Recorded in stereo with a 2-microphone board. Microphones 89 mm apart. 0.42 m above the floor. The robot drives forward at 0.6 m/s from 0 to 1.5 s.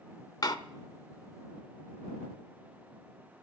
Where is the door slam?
45° left (ahead or behind), 0.6 m.